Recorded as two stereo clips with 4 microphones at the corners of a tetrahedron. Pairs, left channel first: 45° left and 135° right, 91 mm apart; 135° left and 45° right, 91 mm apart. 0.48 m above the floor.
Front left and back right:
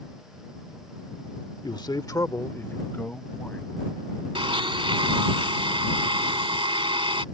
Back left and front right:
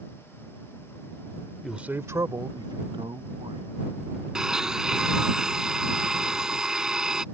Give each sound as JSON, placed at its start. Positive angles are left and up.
{"t": 1.6, "sound": "a man speaking", "azimuth_deg": 45}
{"t": 4.3, "sound": "a blender", "azimuth_deg": -125}